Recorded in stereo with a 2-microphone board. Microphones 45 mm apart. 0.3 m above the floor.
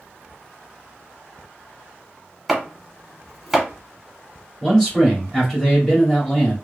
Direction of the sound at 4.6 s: 10° left (ahead or behind).